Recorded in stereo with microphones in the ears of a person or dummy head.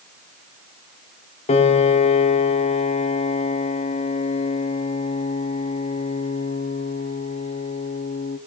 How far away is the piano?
About 1.4 m.